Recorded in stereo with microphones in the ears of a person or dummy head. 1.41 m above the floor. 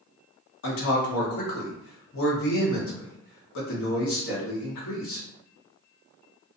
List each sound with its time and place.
0.6 s a man speaking: 70° left (ahead or behind), 1.1 m